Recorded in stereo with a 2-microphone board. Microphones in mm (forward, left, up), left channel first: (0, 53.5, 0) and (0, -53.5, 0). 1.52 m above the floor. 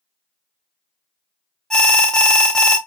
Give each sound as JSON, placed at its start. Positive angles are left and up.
{"t": 1.7, "sound": "an alarm", "side_deg": 5, "distance_m": 0.6}